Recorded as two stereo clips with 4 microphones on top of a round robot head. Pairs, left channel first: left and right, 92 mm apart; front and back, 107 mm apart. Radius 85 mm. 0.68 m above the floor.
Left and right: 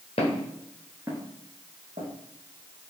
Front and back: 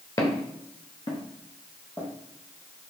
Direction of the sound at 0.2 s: 50° left.